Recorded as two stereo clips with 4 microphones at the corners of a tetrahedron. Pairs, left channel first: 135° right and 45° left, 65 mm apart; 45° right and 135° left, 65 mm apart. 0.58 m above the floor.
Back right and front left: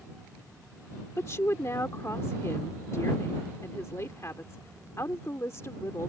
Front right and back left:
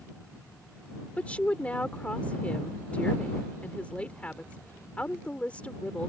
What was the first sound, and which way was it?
A woman speaking, 110° right.